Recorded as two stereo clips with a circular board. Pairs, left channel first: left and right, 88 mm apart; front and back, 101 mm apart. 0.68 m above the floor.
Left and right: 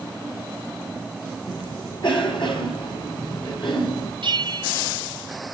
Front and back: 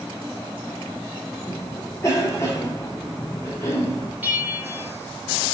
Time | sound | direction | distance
1.5 | a cough | 60° left | 6.5 m
4.2 | a bell | 110° right | 1.8 m